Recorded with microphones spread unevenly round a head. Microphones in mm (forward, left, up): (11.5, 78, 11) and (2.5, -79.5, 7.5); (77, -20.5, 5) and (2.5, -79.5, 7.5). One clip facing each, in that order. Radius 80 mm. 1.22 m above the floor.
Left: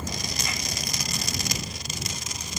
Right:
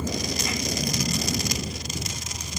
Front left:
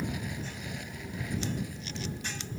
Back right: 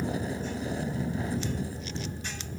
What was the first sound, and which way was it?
A vehicle, 85° right.